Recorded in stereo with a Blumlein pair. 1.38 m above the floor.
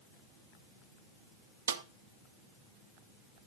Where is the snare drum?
70° right, 0.6 m.